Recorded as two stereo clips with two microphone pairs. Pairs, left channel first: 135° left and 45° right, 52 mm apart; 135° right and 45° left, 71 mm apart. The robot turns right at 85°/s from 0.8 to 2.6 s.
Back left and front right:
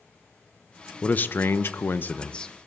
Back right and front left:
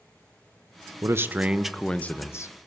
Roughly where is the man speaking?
Left.